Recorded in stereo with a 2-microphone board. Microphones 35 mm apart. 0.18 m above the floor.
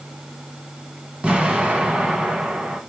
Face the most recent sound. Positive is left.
turn(degrees=-30)  # may be behind; listen again after turning